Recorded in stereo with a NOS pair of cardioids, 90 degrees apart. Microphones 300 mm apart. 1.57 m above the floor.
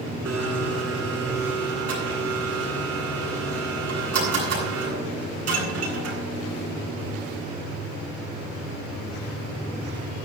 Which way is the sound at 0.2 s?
50° right.